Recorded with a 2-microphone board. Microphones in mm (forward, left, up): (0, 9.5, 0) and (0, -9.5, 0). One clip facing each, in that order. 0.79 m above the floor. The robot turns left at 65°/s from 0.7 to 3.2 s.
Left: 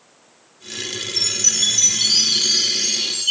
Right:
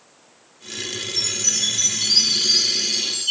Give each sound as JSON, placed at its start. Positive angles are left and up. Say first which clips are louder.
{"t": 1.2, "sound": "a chime", "louder": "left 3 dB", "azimuth_deg": 165, "distance_m": 3.0}